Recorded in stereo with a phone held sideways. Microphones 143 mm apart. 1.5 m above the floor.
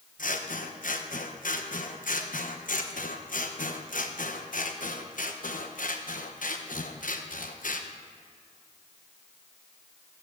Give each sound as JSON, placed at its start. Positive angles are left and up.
{"t": 0.2, "sound": "scissors", "side_deg": 70, "distance_m": 1.0}